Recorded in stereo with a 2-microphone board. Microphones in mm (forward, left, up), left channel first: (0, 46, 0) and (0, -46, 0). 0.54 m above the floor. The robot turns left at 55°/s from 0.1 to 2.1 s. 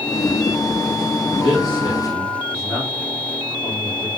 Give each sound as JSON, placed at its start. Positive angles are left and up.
{"t": 1.4, "sound": "a man speaking", "side_deg": 70, "distance_m": 3.0}